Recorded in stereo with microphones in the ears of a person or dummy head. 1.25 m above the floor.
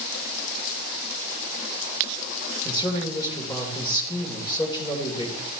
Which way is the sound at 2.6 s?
20° left (ahead or behind).